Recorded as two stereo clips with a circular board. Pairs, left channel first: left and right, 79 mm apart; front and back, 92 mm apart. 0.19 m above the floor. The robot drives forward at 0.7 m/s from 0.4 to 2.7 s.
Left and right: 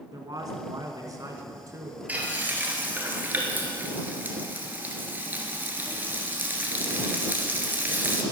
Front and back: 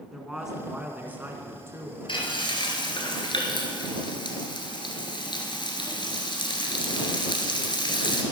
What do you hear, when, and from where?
0.1 s a man speaking: 95° right, 1.9 m; by 2.0 s 130° right, 2 m
2.1 s frying: 20° right, 2.5 m; by 8.2 s 25° right, 2.0 m